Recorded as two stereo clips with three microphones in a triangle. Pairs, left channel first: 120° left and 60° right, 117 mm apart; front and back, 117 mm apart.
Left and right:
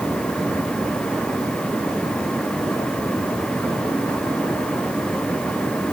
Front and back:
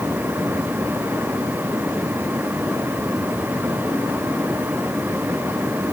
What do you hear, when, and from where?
Only background noise.